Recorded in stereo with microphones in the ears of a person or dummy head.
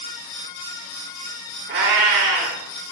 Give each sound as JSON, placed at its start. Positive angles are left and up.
{"t": 1.7, "sound": "a cat meowing", "side_deg": -50, "distance_m": 1.7}